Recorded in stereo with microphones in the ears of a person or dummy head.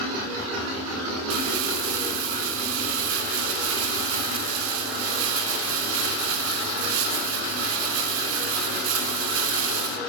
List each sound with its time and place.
1.3 s crumpling: 85° right, 3.5 m